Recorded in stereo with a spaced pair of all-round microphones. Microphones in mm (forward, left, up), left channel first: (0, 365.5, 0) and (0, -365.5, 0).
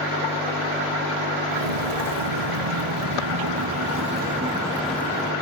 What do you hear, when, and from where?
1.5 s footsteps: 60° right (ahead or behind), 2 m; by 5.3 s 5° left (ahead or behind), 2.0 m